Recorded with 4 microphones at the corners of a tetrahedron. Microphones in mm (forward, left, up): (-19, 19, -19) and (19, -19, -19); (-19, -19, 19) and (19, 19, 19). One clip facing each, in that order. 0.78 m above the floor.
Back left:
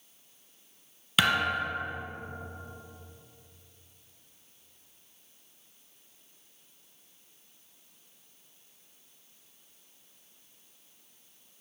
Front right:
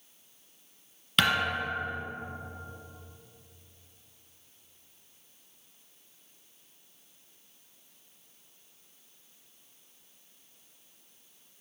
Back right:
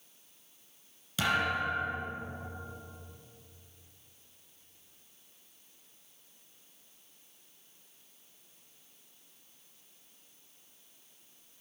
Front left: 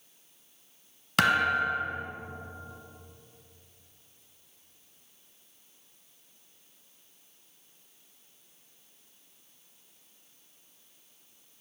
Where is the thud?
50° left, 1.6 m.